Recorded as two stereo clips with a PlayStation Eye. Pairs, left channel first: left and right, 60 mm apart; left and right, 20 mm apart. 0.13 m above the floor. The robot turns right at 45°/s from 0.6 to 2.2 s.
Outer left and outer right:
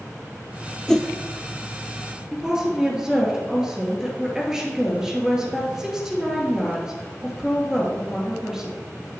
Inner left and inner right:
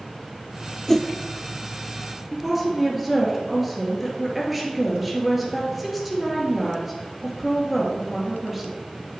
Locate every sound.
0.9 s a whoosh: 10° left (ahead or behind), 0.6 m; by 1.1 s 20° left (ahead or behind), 0.6 m
2.3 s a woman speaking: 10° right (ahead or behind), 2 m